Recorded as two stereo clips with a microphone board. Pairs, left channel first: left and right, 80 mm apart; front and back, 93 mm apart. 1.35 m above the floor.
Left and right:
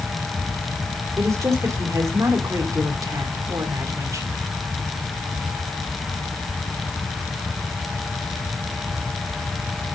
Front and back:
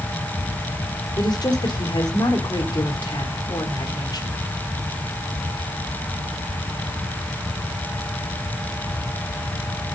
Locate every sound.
1.2 s a woman speaking: 40° right, 3.5 m